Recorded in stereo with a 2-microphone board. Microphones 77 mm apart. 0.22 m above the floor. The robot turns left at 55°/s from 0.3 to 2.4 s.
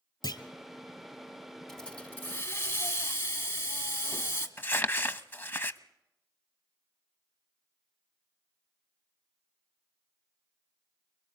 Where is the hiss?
170° left, 1.5 m; by 4.5 s 130° left, 1.5 m.